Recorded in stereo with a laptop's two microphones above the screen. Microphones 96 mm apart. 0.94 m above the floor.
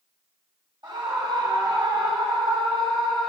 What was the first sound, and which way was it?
A scream, 60° right (ahead or behind).